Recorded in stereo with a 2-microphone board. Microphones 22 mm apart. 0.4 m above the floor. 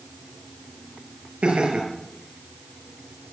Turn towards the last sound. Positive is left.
turn(degrees=-65)  # may be behind; listen again after turning